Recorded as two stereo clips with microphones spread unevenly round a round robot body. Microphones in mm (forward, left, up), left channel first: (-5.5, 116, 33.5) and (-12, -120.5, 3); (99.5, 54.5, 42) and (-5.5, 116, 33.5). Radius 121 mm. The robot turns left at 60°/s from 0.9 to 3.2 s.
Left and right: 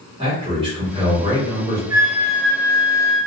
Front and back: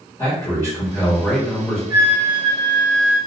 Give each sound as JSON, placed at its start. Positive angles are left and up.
{"t": 0.2, "sound": "a man speaking", "azimuth_deg": -80, "distance_m": 1.3}
{"t": 1.9, "sound": "a flute", "azimuth_deg": -155, "distance_m": 0.9}